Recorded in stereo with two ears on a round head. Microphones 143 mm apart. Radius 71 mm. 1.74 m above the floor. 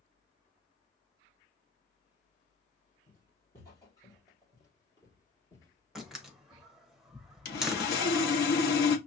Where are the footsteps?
20° left (ahead or behind), 2.5 m; by 6.7 s 15° left (ahead or behind), 1.8 m.